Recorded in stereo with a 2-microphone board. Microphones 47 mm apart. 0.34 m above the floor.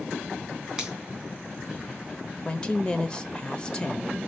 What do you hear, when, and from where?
0.8 s a finger snap: 10° right (ahead or behind), 3 m
2.5 s a woman speaking: 20° left (ahead or behind), 0.9 m